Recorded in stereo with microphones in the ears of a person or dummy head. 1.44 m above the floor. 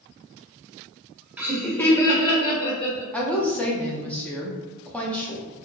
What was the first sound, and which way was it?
Laughter, 10° right (ahead or behind).